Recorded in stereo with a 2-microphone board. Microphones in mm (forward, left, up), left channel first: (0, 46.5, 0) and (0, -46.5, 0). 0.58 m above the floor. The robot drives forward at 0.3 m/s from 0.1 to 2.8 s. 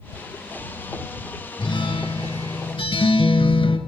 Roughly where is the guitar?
Left.